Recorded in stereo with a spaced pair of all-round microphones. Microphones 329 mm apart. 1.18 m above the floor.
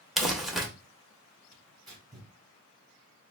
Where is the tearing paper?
15° right (ahead or behind), 2 m.